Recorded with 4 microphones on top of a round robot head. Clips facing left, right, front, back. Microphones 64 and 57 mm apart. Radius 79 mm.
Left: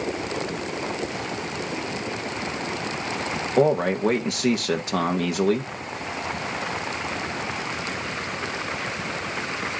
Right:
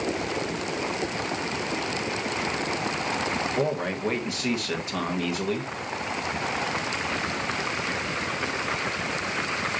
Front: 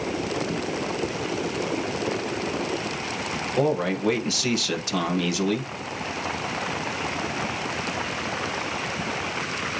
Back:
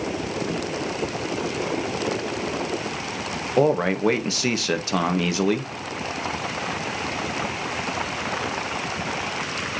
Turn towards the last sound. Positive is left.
turn(degrees=125)